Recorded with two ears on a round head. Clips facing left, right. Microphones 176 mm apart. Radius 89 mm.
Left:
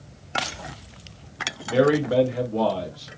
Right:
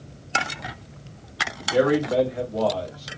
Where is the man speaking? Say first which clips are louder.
Left 1 dB; 30° left (ahead or behind), 1.2 m; by 3.1 s 70° left (ahead or behind), 1.2 m.